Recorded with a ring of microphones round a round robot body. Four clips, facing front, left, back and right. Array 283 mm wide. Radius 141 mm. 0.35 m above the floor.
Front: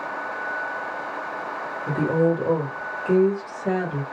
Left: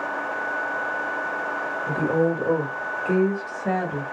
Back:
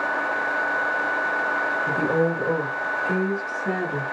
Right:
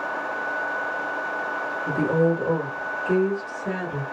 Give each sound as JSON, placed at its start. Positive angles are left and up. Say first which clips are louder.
{"t": 1.9, "sound": "a woman speaking", "louder": "right 1 dB, front 3 dB", "azimuth_deg": -40, "distance_m": 1.0}